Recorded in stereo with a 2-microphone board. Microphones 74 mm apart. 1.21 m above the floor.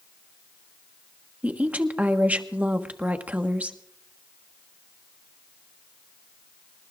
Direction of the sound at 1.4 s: 15° right (ahead or behind).